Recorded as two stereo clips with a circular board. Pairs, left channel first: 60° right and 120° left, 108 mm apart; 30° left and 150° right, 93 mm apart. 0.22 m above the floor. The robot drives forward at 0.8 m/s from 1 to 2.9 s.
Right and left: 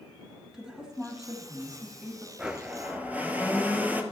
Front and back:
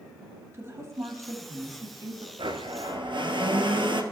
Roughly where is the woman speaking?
Behind.